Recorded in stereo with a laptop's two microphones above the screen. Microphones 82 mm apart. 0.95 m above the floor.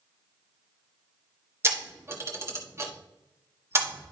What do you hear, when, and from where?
1.6 s a camera shutter: 35° right (ahead or behind), 1.5 m